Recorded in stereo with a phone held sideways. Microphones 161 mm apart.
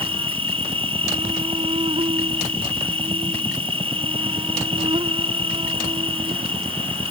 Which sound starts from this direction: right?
An insect, at 0.0 s.